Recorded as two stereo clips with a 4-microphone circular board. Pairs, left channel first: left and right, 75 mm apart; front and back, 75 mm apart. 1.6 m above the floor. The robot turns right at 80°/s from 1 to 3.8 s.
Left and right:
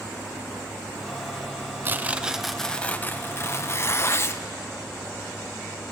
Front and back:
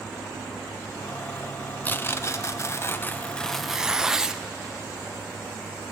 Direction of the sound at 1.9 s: 50° right.